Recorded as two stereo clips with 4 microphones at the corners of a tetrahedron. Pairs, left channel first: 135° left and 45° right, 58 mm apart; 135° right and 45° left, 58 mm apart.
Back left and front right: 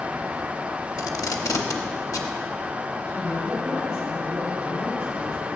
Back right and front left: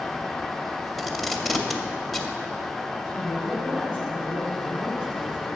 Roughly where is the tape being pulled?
Behind left.